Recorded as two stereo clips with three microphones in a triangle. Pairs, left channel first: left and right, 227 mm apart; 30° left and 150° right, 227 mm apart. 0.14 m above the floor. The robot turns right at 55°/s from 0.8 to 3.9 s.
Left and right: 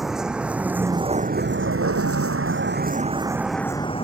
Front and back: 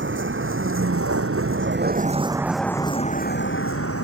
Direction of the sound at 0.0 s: Straight behind.